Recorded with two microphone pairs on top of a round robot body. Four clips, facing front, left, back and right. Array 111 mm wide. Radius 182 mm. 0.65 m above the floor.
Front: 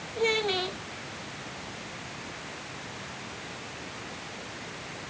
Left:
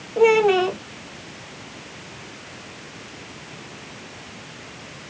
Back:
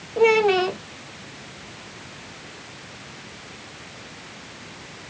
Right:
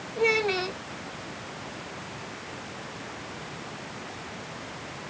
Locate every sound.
0.2 s a child speaking: 125° left